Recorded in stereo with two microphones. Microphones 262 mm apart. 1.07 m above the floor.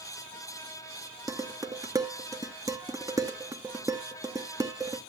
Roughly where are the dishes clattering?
Centre.